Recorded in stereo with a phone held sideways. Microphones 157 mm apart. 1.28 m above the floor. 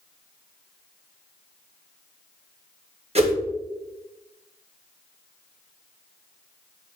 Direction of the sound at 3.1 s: 40° right (ahead or behind).